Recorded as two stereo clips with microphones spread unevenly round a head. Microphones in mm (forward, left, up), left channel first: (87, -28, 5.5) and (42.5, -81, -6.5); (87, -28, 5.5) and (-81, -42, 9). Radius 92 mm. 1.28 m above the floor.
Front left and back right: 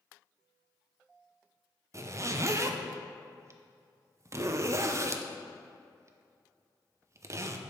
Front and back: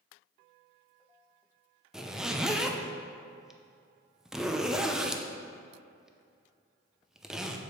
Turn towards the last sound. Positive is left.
turn(degrees=-90)